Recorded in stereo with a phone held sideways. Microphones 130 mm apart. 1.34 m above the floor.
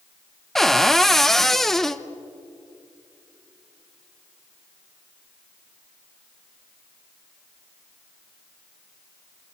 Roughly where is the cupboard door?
Centre.